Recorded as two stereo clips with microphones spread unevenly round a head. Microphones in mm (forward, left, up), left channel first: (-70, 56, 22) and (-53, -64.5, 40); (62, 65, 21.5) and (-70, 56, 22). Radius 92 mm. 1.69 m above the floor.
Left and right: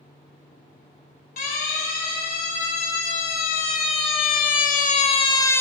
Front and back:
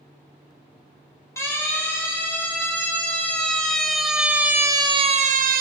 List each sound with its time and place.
1.4 s a siren: 75° left, 6 m; by 5.6 s 175° left, 1.3 m